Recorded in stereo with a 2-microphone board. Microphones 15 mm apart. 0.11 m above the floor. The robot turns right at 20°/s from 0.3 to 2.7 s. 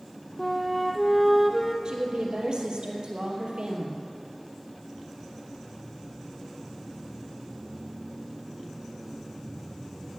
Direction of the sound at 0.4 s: 15° left (ahead or behind).